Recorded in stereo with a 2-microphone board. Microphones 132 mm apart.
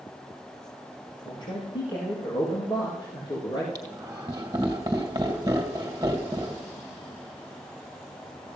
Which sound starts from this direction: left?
A man speaking, at 1.2 s.